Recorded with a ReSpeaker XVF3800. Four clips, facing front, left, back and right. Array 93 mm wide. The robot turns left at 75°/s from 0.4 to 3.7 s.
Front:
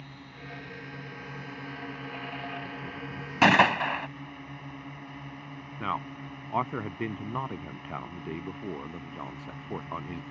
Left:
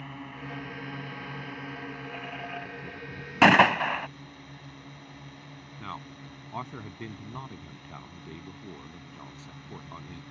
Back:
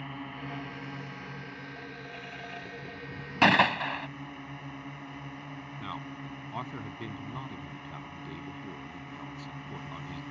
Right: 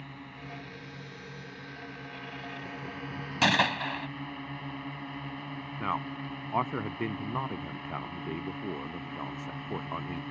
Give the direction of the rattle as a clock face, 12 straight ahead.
No rattle in this recording.